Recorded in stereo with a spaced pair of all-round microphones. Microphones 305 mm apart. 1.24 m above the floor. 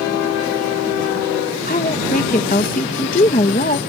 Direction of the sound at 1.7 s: 25° left (ahead or behind).